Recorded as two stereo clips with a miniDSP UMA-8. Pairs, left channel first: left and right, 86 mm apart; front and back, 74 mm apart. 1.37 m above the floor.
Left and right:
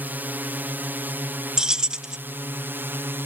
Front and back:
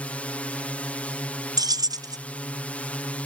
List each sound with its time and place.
0.0 s a drone: 50° right; by 3.3 s 55° right
1.6 s keys jangling: 170° right